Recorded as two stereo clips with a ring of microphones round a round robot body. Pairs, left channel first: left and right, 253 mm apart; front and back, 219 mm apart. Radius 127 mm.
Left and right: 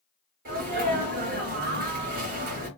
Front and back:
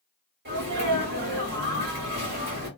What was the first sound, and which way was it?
A sneeze, 140° right.